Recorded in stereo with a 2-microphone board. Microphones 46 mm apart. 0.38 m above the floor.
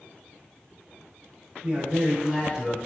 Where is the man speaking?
25° right (ahead or behind), 0.9 m; by 2.8 s 5° right (ahead or behind), 0.8 m.